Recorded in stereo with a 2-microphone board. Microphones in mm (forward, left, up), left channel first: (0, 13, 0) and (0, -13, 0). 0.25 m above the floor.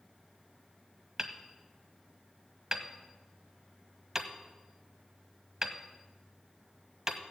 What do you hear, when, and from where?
1.2 s hammering: 20° right (ahead or behind), 1.2 m